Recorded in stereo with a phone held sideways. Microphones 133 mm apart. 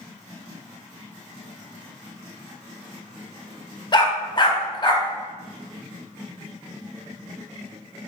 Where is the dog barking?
35° left (ahead or behind), 0.8 m.